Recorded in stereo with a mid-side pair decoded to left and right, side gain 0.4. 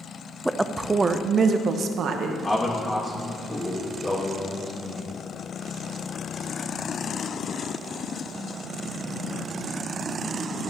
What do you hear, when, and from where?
0.5 s a woman speaking: 10° right, 0.5 m; by 2.3 s 75° right, 1.0 m
2.4 s a man speaking: 25° left, 1.5 m